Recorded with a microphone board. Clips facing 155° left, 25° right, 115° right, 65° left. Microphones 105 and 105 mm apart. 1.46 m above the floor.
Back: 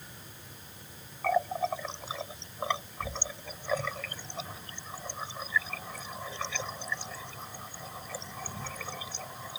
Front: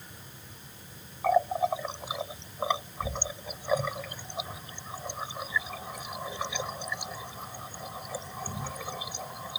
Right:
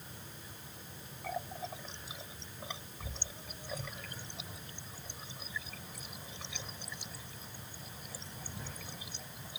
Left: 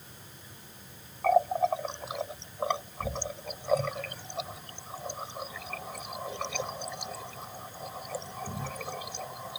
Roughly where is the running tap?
Ahead left.